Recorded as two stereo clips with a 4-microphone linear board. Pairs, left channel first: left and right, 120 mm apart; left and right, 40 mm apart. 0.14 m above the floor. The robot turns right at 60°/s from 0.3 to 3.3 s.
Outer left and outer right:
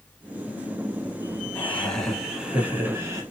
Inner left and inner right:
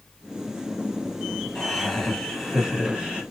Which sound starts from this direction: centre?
Laughter, at 1.6 s.